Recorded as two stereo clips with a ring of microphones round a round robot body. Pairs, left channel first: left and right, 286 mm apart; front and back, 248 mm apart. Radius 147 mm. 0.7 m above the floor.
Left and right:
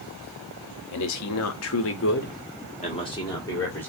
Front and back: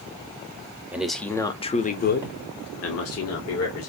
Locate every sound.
0.9 s a man speaking: 95° left, 0.9 m; by 3.9 s 5° left, 1.6 m